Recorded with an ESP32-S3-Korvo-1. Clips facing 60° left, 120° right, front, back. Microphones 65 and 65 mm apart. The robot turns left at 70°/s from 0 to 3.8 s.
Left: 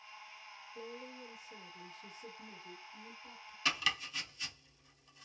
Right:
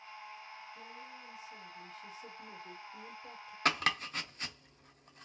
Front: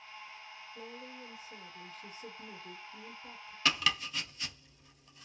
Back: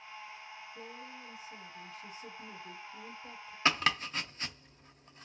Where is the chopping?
130° right, 0.5 m; by 5.2 s 140° right, 0.5 m.